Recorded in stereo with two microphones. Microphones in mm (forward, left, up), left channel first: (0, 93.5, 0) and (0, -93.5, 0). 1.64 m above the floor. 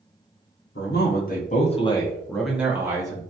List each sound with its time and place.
0.8 s a man speaking: 55° left (ahead or behind), 0.9 m; by 3.2 s 20° right (ahead or behind), 1.0 m